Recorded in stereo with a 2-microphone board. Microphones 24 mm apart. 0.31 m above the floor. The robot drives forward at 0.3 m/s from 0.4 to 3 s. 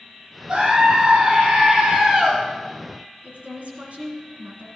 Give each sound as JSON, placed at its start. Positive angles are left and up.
{"t": 0.5, "sound": "a scream", "side_deg": -40, "distance_m": 2.0}
{"t": 3.2, "sound": "a woman speaking", "side_deg": -65, "distance_m": 2.5}